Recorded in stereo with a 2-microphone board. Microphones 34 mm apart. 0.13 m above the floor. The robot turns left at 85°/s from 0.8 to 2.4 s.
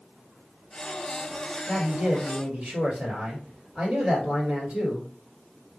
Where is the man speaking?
20° left, 2 m; by 5.1 s 45° right, 2 m.